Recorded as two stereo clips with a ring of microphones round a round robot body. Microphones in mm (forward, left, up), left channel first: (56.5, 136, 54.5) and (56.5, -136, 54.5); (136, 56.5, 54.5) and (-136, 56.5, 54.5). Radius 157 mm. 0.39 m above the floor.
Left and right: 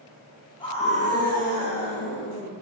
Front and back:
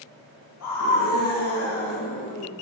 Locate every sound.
0.6 s a scream: 20° left, 3.5 m; by 2.5 s 40° left, 6 m